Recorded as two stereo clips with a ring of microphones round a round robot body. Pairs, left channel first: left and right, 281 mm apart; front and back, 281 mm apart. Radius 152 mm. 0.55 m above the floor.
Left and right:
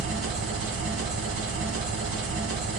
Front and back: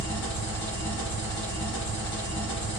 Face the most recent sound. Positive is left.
turn(degrees=-45)